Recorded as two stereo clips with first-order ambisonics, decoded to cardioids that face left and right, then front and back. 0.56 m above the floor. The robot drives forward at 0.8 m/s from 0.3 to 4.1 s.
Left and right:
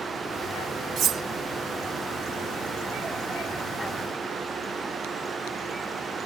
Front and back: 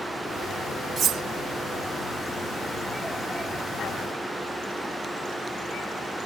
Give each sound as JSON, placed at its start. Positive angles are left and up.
{"t": 1.0, "sound": "cutlery clinking", "azimuth_deg": -125}